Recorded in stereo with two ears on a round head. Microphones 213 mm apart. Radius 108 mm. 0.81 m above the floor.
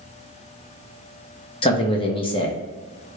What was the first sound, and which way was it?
A man speaking, 20° left (ahead or behind).